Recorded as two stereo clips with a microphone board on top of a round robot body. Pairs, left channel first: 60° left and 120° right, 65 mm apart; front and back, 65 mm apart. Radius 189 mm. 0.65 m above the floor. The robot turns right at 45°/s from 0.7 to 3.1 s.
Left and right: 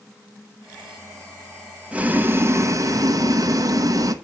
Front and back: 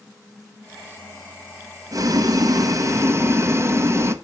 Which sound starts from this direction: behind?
Boiling, at 1.9 s.